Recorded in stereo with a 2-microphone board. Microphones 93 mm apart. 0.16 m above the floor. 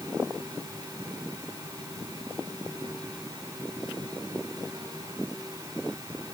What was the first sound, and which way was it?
Only background noise.